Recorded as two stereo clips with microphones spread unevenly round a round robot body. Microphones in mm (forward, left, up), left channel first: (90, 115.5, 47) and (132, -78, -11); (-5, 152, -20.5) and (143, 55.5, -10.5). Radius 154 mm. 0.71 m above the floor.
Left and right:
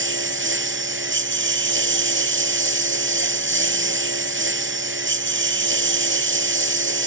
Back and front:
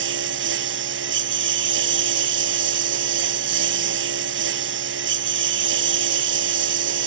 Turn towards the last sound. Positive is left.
turn(degrees=-55)